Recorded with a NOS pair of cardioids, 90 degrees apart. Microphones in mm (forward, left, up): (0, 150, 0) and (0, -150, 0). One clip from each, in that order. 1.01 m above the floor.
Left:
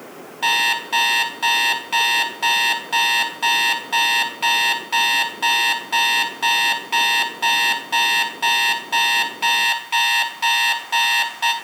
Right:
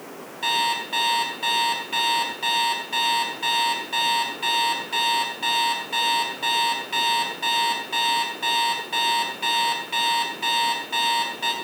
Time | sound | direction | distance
0.4 | an alarm clock | 45° left | 3 m